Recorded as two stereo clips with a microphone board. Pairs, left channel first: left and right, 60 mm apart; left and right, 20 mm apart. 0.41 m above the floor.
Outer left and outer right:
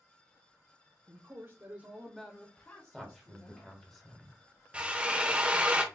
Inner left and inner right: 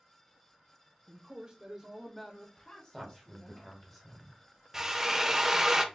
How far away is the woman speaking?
About 1.5 m.